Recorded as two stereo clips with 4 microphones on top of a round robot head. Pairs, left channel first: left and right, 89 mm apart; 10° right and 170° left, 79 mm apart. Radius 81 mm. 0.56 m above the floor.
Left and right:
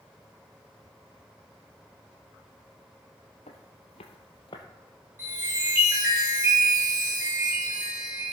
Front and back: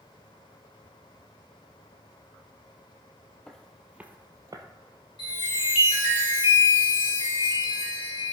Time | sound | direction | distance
3.5 | footsteps | 70° left | 1.1 m
5.2 | a chime | 25° right | 5.5 m